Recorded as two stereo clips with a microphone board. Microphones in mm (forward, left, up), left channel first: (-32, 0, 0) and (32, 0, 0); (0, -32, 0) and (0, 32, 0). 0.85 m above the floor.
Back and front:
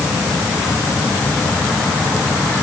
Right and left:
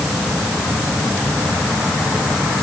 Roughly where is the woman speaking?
I don't hear a woman speaking.